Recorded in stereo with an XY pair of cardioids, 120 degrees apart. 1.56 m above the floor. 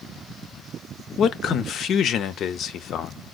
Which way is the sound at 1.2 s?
60° left.